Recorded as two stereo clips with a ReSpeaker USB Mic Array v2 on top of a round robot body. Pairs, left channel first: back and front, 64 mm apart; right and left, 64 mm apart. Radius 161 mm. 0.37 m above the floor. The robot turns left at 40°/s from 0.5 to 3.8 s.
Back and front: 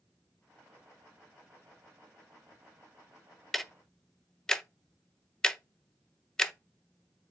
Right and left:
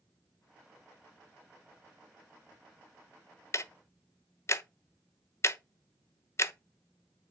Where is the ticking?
90° right, 0.6 m; by 6.5 s 105° right, 0.6 m.